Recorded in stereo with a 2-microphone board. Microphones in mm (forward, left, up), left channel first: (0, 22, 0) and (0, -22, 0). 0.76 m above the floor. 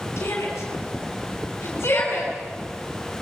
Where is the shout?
75° left (ahead or behind), 8.5 m; by 2.3 s 60° left (ahead or behind), 8.5 m.